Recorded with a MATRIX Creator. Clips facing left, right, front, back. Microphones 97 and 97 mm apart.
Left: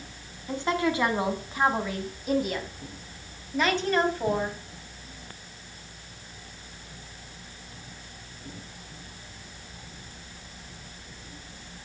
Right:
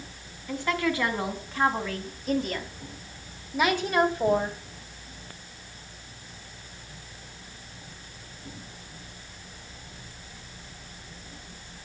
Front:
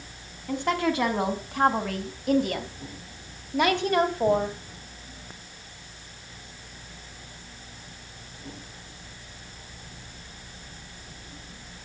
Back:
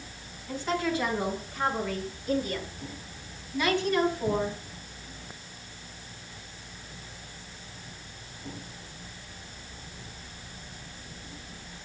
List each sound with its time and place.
0.5 s a woman speaking: 25° left, 4.5 m; by 4.6 s 25° right, 3 m